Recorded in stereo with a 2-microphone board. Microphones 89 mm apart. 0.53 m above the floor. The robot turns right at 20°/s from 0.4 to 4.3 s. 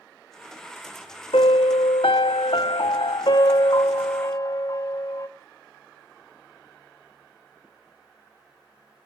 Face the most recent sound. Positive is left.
turn(degrees=135)